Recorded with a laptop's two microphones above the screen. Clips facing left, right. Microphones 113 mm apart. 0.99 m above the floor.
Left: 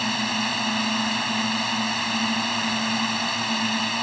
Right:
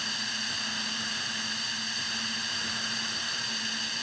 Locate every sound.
0.0 s a drone: 70° left (ahead or behind)